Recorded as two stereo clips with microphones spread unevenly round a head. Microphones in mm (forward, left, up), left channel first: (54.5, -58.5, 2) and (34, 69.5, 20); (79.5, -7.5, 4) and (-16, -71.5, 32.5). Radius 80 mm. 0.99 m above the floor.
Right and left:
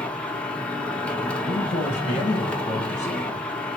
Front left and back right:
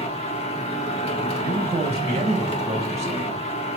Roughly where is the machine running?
Ahead.